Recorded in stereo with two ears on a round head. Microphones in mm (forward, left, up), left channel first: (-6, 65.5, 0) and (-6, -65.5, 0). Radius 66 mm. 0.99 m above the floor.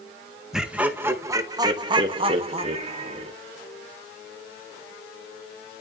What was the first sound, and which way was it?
Laughter, 5° right (ahead or behind).